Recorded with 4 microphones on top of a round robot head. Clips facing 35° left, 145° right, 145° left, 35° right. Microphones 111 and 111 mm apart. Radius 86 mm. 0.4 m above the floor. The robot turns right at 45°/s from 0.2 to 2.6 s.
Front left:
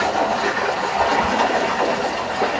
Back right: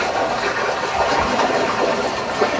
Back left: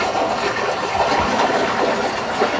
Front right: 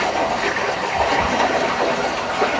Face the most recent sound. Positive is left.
turn(degrees=-145)